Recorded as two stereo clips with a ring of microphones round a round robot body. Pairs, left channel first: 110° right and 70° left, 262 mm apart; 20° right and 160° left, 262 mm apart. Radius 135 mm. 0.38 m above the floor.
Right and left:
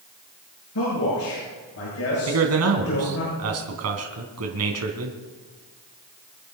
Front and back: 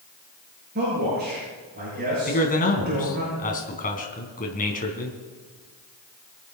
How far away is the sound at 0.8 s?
About 8 m.